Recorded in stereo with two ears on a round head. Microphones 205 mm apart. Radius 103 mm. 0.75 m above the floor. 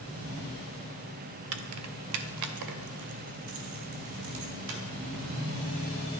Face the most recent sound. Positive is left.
turn(degrees=-80)